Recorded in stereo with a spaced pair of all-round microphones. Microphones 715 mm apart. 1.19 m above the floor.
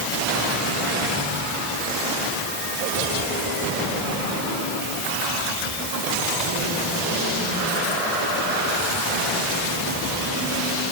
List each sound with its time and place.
Only background noise.